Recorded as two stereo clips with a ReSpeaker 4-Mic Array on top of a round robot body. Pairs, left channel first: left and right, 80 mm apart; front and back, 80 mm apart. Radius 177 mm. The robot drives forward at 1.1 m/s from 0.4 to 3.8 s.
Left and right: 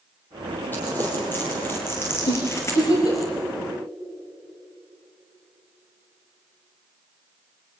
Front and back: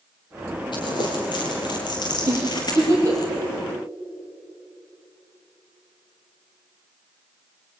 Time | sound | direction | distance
0.7 | crumpling | 25° left | 6.5 m
2.3 | a giggle | 120° left | 8 m